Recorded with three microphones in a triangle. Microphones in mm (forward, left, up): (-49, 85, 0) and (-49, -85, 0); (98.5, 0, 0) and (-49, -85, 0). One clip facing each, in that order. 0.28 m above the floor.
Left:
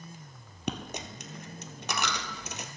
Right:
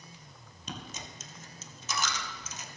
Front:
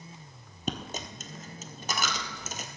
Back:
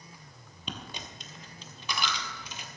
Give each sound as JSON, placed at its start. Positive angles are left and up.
{"t": 0.7, "sound": "a dropped coin", "azimuth_deg": 70, "distance_m": 1.1}